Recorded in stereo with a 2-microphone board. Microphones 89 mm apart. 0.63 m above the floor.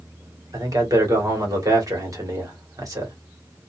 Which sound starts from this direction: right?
A man speaking, at 0.5 s.